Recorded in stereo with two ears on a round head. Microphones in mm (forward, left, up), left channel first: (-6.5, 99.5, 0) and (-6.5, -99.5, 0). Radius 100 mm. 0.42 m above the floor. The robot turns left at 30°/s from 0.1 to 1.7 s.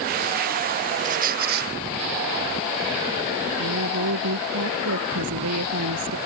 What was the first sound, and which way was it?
A squeak, 35° right (ahead or behind).